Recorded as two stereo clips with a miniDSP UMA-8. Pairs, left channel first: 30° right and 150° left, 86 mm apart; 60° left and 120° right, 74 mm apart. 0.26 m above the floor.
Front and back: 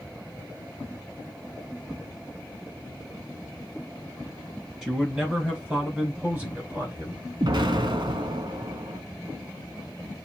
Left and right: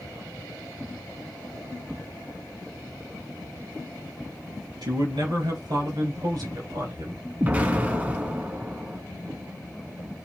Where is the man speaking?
125° right, 4 m; by 7.2 s 145° right, 3.5 m.